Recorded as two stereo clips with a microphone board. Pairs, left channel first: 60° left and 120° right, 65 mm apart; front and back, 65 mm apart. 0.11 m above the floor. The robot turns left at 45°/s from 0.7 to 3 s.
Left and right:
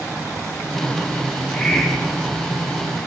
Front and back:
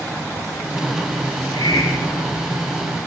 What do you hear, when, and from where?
1.3 s a hiss: 5° right, 8 m; by 2.5 s 60° right, 8 m